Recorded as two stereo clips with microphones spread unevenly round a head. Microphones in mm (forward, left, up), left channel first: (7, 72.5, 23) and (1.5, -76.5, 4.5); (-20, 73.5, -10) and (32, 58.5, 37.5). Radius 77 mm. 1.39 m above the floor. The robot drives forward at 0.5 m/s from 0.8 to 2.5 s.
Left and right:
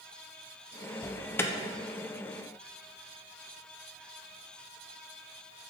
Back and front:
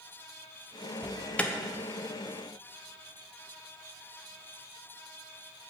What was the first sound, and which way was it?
An alarm, 165° left.